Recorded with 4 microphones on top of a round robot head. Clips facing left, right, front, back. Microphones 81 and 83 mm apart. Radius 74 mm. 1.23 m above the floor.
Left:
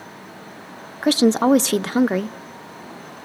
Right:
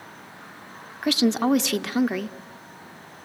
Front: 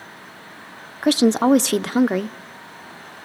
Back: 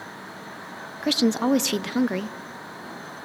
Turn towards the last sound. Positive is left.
turn(degrees=45)